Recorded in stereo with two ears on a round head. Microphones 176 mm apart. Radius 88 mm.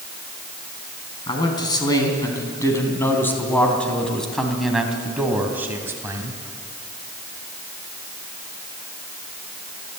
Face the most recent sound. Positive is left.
turn(degrees=-15)  # may be behind; listen again after turning